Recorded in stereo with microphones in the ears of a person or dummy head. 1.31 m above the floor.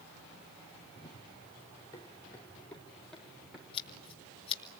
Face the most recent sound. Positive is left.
turn(degrees=30)  # may be behind; listen again after turning